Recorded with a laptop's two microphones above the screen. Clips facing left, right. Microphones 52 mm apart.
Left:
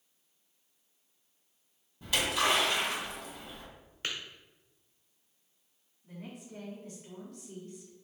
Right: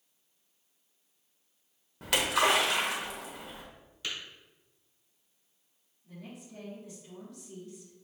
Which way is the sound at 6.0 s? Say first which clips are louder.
Left 1 dB; 55° left (ahead or behind).